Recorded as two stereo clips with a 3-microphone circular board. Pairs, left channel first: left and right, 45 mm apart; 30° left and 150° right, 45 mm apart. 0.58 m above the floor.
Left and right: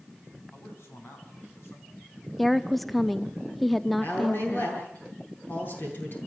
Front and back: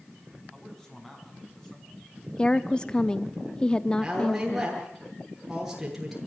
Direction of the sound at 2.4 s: 5° left.